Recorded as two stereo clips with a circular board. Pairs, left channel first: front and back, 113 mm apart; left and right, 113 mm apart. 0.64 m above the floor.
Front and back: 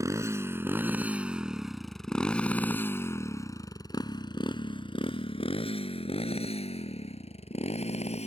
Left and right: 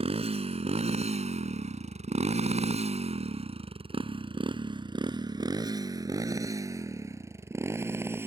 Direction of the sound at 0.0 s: 120° right.